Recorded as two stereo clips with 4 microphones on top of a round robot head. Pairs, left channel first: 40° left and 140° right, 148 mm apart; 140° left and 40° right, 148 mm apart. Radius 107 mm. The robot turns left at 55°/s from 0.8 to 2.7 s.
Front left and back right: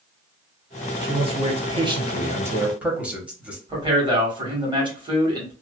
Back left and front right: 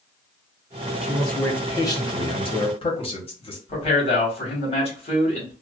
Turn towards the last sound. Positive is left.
turn(degrees=170)